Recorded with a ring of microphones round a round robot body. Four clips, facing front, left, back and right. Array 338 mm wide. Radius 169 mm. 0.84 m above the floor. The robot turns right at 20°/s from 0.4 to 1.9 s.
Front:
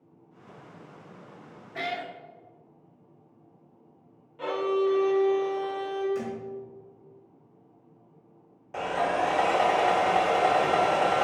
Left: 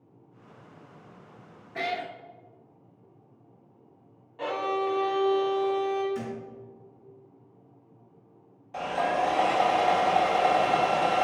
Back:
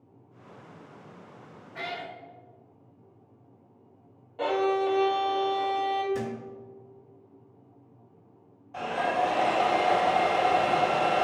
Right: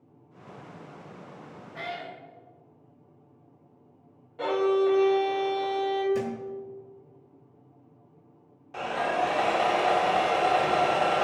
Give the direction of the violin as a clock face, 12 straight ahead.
5 o'clock.